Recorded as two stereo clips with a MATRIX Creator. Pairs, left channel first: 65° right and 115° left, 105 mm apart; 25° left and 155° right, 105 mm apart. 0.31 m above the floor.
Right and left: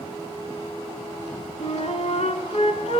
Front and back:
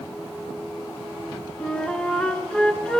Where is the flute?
60° right, 0.9 m.